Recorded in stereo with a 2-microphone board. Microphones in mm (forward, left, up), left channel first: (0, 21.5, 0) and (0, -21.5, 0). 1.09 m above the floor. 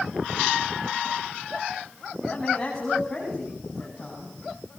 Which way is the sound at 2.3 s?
10° left (ahead or behind).